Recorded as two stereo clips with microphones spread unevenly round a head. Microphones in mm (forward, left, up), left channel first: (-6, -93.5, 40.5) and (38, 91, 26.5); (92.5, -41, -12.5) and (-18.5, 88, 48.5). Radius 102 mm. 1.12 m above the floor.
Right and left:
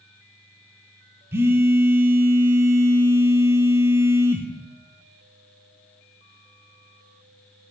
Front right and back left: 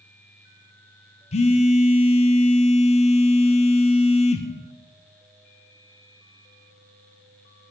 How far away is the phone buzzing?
About 0.7 m.